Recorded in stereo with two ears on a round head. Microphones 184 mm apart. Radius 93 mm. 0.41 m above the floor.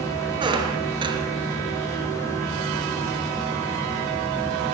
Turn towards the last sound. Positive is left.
turn(degrees=-25)  # may be behind; listen again after turning